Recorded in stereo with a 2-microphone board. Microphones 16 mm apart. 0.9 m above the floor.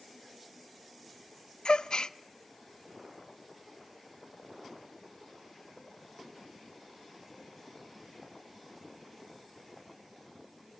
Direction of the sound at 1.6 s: 80° left.